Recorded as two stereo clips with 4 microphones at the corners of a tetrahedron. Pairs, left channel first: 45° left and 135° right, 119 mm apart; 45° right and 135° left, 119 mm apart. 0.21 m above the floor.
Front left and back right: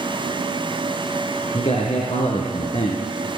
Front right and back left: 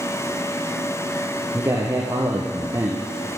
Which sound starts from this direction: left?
A man speaking, at 1.5 s.